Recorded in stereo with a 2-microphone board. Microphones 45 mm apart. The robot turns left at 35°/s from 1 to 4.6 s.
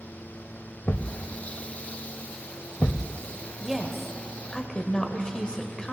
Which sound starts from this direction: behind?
A woman speaking, at 3.6 s.